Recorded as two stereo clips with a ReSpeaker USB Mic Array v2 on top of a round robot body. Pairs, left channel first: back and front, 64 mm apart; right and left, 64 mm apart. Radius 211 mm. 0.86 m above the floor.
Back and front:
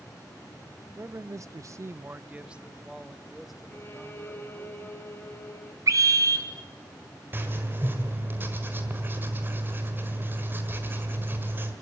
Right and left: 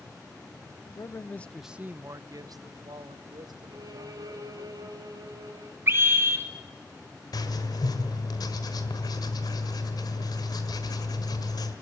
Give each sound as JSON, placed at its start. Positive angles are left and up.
{"t": 0.9, "sound": "a man speaking", "azimuth_deg": -50, "distance_m": 0.9}
{"t": 3.7, "sound": "a violin", "azimuth_deg": 120, "distance_m": 3.5}
{"t": 5.9, "sound": "a scream", "azimuth_deg": 35, "distance_m": 3.5}
{"t": 7.3, "sound": "writing", "azimuth_deg": -60, "distance_m": 1.7}